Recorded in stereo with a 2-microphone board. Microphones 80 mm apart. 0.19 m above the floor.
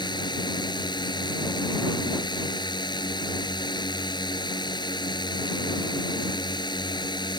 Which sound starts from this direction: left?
A drone, at 0.0 s.